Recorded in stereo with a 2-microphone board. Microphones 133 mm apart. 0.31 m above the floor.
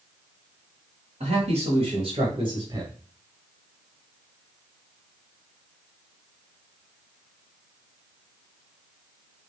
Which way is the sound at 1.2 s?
55° right (ahead or behind).